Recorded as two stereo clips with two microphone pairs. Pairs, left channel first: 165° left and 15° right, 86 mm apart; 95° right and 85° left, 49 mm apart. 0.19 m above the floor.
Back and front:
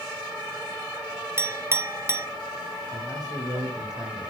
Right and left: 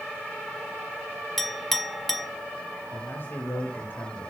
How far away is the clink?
About 0.9 m.